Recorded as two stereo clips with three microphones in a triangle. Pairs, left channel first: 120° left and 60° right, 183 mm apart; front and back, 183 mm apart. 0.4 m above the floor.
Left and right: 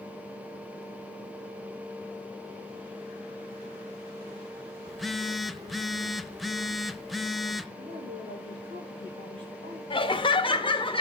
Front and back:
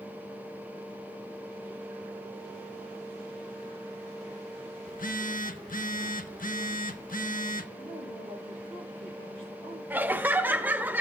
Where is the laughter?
110° left, 1.1 m.